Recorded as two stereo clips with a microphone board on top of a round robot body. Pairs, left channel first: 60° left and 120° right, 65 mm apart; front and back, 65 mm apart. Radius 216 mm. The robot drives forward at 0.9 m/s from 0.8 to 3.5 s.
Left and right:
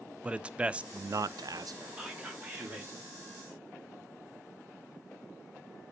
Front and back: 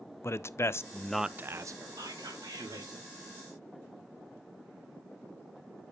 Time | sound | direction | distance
0.2 | a man speaking | 50° right | 0.6 m
2.0 | whispering | 170° left | 3 m